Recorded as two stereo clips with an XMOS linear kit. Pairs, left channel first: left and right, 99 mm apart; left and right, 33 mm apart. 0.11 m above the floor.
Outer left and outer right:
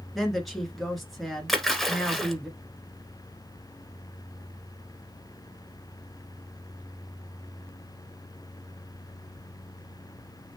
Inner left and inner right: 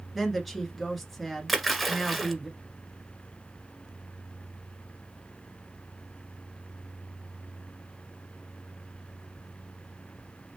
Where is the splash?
Centre (ahead or behind), 1.1 m.